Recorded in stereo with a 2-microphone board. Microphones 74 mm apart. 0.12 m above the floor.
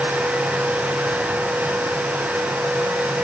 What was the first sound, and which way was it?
Only background noise.